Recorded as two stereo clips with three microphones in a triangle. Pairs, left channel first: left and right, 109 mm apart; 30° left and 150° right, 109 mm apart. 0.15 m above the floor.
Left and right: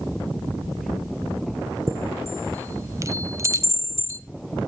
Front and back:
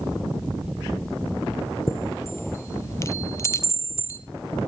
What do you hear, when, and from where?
1.9 s a chime: 35° right, 0.7 m